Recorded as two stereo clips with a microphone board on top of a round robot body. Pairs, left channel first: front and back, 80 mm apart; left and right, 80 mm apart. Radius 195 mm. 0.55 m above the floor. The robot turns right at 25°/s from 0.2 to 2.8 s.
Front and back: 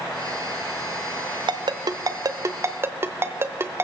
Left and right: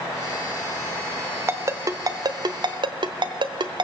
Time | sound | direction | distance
1.5 | a ringtone | 150° right | 0.8 m